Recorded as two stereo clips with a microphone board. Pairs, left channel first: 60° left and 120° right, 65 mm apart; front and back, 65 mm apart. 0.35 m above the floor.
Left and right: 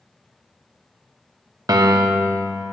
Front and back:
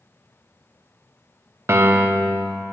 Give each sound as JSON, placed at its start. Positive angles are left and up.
{"t": 1.7, "sound": "a piano", "azimuth_deg": -130, "distance_m": 0.6}